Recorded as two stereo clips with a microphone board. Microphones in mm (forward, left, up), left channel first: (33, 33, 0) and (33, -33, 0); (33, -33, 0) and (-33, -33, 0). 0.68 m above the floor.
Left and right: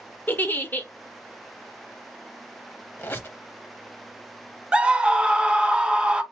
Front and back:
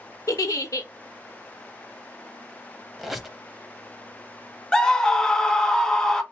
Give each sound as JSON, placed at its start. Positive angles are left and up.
{"t": 0.3, "sound": "a giggle", "azimuth_deg": 30, "distance_m": 0.5}
{"t": 3.0, "sound": "a squeak", "azimuth_deg": 95, "distance_m": 0.5}
{"t": 4.7, "sound": "a scream", "azimuth_deg": -50, "distance_m": 0.5}